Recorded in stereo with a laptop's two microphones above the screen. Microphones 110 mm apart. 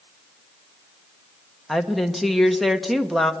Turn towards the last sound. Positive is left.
turn(degrees=0)  # may be behind; listen again after turning